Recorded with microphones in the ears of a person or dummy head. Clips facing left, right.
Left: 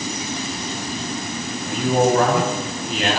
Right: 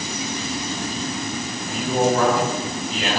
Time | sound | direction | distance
1.6 | a man speaking | 60° left (ahead or behind) | 9 m